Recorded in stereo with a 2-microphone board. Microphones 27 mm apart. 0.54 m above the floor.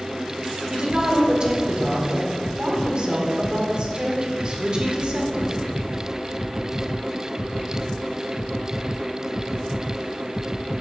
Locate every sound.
0.7 s a woman speaking: 40° right (ahead or behind), 2.0 m